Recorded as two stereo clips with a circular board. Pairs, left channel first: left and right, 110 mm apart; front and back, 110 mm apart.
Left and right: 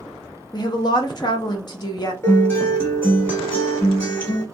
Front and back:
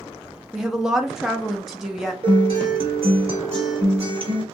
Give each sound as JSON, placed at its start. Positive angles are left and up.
{"t": 0.5, "sound": "a woman speaking", "azimuth_deg": 95, "distance_m": 0.5}
{"t": 2.2, "sound": "a guitar", "azimuth_deg": 160, "distance_m": 1.2}